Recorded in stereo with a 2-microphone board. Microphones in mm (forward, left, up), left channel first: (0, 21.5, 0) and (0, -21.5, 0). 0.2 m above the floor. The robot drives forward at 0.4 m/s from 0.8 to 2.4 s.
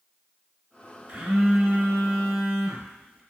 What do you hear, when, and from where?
1.1 s a phone buzzing: 15° right (ahead or behind), 1.9 m